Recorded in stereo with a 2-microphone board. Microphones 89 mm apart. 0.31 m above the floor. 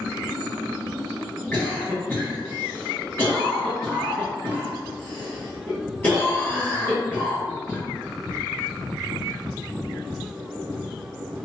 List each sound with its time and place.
1.5 s a cough: 20° left (ahead or behind), 1.4 m